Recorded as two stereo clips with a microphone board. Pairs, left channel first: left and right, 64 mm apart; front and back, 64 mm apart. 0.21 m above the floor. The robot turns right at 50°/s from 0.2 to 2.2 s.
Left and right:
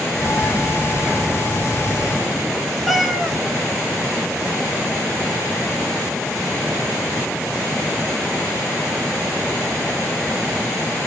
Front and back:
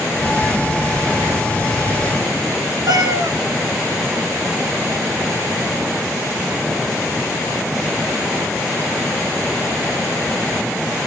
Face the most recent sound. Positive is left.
turn(degrees=180)